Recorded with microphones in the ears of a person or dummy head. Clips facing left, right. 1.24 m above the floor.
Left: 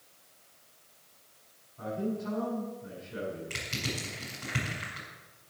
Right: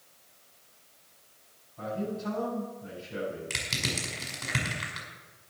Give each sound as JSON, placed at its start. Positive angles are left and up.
{"t": 1.8, "sound": "a man speaking", "side_deg": -65, "distance_m": 7.5}
{"t": 3.5, "sound": "crushing", "side_deg": -75, "distance_m": 6.0}